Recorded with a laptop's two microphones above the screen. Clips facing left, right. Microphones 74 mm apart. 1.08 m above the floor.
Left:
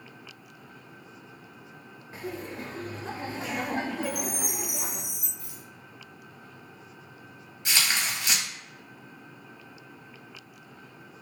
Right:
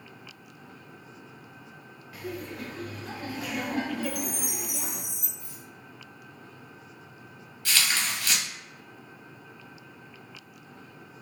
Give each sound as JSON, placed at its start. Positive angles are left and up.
{"t": 2.1, "sound": "laughter", "side_deg": 30, "distance_m": 0.6}
{"t": 4.0, "sound": "a chime", "side_deg": 50, "distance_m": 1.5}
{"t": 5.4, "sound": "a rattle", "side_deg": 80, "distance_m": 0.7}
{"t": 7.7, "sound": "tearing paper", "side_deg": 20, "distance_m": 0.9}